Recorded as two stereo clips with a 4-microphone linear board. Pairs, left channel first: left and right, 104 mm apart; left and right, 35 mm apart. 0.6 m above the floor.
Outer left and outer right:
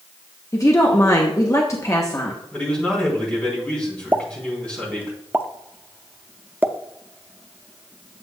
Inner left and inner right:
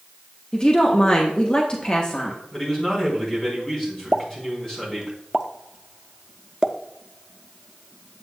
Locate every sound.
0.5 s a woman speaking: 30° left (ahead or behind), 0.9 m
2.5 s a man speaking: 10° left (ahead or behind), 4 m
4.1 s a pop: 20° right (ahead or behind), 0.5 m